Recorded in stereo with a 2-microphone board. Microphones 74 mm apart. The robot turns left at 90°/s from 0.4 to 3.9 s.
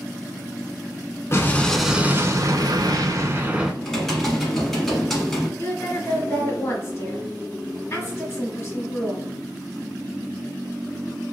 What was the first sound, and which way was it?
An explosion, 40° left.